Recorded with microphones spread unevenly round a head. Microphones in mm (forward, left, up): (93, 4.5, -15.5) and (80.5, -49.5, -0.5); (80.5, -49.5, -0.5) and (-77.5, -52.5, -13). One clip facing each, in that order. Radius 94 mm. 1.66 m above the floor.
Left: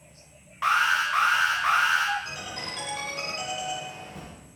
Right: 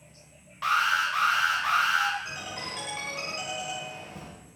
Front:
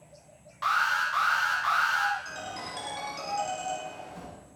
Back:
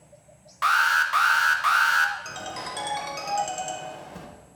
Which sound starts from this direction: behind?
A ringtone, at 2.2 s.